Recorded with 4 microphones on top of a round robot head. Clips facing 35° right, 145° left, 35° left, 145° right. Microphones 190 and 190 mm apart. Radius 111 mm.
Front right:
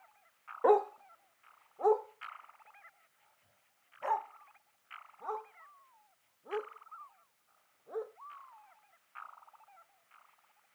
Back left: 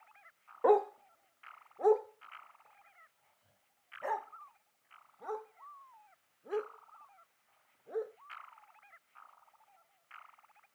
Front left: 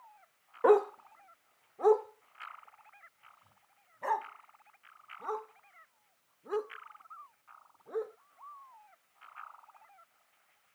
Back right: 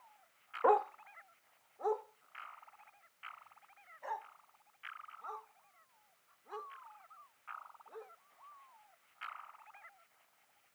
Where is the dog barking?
50° left; by 8.1 s 70° left.